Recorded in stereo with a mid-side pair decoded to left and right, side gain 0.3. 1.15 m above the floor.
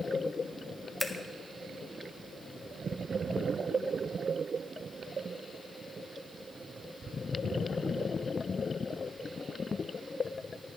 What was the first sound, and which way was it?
Scissors, 10° left.